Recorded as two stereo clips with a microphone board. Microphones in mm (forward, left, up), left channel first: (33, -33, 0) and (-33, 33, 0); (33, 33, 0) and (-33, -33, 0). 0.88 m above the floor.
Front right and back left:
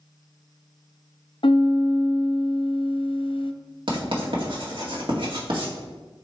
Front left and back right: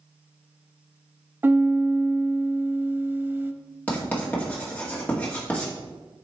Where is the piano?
70° right, 0.5 m.